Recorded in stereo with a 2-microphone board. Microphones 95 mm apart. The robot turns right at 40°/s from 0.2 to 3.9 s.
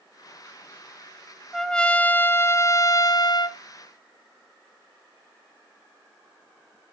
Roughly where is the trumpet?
Ahead.